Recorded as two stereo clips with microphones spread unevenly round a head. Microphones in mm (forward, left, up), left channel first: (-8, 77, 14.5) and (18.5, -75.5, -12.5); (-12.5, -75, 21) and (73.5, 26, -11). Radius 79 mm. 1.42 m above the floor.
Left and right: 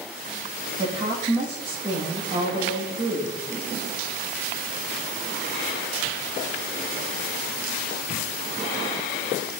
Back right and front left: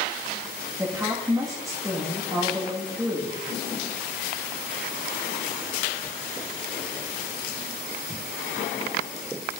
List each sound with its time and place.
0.8 s a woman speaking: 20° right, 1.7 m